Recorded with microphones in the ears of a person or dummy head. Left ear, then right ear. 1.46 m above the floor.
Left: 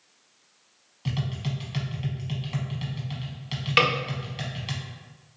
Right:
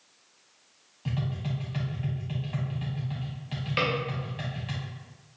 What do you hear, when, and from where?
1.1 s tapping: 15° left (ahead or behind), 1.1 m
3.8 s a snare drum: 30° left (ahead or behind), 0.5 m